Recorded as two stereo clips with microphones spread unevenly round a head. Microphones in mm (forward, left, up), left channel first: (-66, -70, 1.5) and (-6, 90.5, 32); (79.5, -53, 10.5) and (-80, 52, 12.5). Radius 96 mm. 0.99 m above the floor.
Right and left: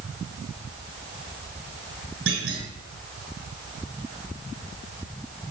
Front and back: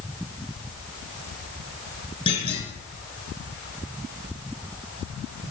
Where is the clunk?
30° left, 5 m.